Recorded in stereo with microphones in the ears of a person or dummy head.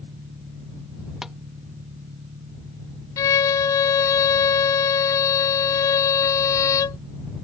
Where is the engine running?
30° right (ahead or behind).